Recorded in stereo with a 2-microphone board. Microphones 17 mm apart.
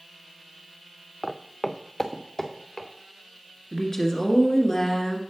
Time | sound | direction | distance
1.2 | footsteps | 5° right (ahead or behind) | 0.5 m
3.7 | a woman speaking | 20° left (ahead or behind) | 1.8 m